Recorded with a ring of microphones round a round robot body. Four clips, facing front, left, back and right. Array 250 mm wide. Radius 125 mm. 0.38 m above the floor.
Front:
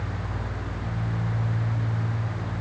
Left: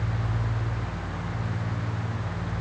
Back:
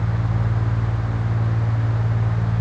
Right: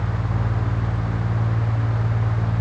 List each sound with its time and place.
Only background noise.